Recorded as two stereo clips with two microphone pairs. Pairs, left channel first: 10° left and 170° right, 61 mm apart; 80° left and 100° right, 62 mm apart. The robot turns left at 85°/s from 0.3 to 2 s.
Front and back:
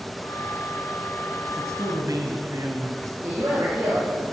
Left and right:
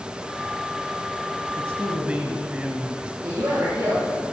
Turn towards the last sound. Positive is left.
turn(degrees=-110)